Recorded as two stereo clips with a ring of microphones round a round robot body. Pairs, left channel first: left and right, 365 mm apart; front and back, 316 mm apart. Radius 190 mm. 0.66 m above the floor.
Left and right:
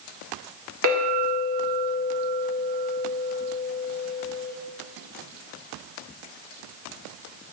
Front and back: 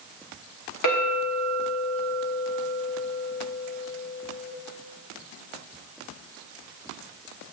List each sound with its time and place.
0.8 s a clink: 35° right, 1.5 m